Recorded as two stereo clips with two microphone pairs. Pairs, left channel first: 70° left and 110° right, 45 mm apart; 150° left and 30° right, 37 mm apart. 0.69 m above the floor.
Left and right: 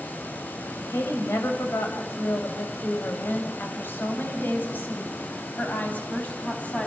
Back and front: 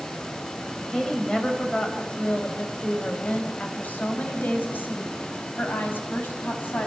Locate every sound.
0.9 s a woman speaking: 70° left, 4 m; by 6.9 s 125° left, 6 m